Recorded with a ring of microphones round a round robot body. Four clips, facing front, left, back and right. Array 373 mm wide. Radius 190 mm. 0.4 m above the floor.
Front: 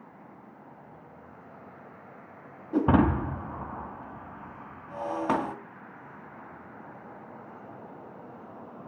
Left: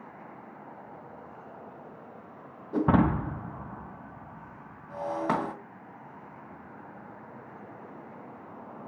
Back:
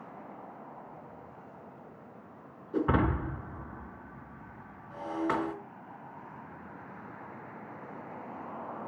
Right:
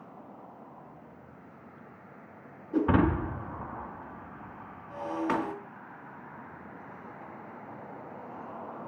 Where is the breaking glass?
35° left, 2.5 m.